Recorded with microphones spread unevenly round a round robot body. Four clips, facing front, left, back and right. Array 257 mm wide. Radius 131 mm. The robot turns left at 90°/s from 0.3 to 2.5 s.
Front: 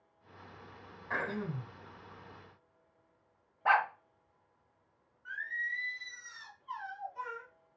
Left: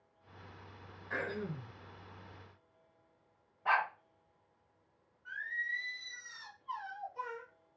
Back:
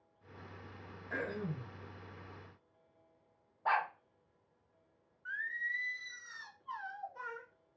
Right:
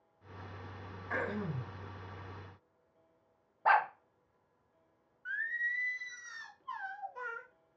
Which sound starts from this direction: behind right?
Singing, at 5.2 s.